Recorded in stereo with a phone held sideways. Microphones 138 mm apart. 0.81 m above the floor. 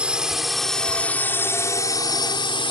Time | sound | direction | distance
0.0 | a drone | 10° right (ahead or behind) | ?